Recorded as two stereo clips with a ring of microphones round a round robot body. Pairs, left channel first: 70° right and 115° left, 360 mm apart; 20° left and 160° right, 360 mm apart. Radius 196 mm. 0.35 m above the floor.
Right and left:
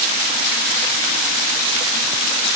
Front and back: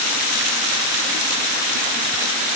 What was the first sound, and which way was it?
Only background noise.